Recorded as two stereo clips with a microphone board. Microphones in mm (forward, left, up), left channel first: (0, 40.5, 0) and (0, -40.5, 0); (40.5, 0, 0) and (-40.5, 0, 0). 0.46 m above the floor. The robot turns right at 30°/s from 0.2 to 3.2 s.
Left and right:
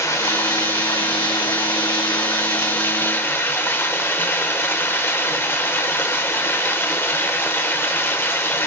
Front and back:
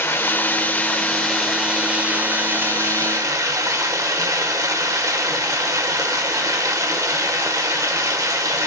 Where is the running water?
55° left, 1.0 m; by 8.7 s 145° left, 1.0 m.